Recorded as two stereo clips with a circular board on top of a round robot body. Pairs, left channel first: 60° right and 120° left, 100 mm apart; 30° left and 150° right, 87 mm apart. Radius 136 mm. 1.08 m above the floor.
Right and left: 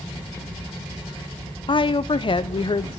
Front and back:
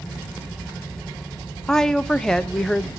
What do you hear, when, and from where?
1.7 s a woman speaking: 55° right, 1.0 m